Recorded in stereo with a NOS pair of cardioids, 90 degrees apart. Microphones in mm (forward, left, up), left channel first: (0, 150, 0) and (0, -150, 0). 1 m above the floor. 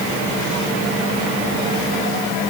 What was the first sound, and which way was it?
Only background noise.